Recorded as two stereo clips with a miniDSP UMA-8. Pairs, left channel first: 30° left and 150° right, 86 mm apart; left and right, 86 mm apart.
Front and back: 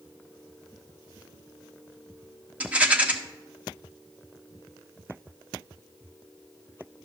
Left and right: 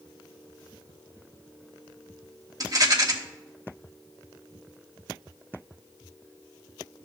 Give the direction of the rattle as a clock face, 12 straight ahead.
3 o'clock.